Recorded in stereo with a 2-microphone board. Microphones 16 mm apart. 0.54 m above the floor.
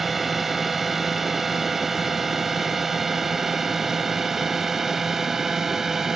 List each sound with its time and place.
0.0 s a drone: 10° right (ahead or behind); by 6.2 s 25° right (ahead or behind)